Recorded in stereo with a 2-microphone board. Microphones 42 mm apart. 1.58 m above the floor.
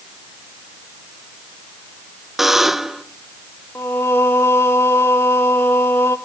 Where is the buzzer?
10° right (ahead or behind), 0.7 m.